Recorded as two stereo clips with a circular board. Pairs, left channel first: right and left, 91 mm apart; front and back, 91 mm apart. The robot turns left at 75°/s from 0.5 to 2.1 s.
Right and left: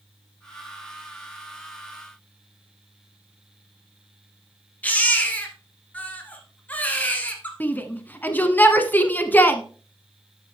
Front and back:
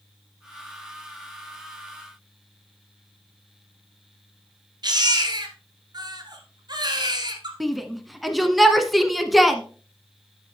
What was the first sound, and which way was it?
A baby crying, 160° right.